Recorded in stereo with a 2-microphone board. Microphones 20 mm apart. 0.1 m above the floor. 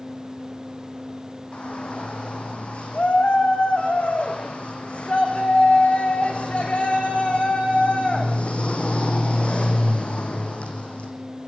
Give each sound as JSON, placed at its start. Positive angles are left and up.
{"t": 1.5, "sound": "a shout", "side_deg": 75, "distance_m": 6.5}